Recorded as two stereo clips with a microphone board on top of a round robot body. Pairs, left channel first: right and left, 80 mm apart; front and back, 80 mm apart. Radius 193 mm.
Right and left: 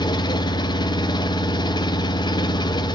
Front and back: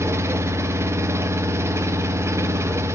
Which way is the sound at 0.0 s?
120° right.